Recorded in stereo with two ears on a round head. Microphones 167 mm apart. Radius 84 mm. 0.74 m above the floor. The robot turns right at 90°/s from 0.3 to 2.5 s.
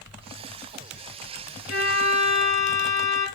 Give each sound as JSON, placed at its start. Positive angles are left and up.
{"t": 1.7, "sound": "a violin", "azimuth_deg": 45, "distance_m": 1.2}